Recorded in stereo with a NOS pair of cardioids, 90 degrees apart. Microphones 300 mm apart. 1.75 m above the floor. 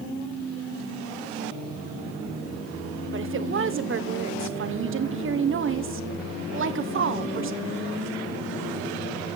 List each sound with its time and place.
3.1 s a woman speaking: 45° right, 1.6 m